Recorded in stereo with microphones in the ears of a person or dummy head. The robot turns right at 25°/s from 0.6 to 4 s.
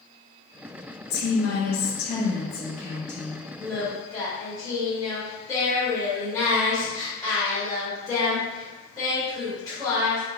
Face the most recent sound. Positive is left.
turn(degrees=20)  # may be behind; listen again after turning